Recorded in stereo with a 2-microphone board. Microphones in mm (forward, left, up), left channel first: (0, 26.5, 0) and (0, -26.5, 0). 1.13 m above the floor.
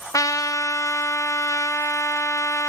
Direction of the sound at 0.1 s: 85° left.